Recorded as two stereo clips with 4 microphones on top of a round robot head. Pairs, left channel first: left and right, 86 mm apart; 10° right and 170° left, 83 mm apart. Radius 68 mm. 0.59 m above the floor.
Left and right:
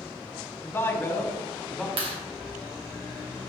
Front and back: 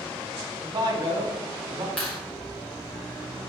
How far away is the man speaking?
About 1.8 m.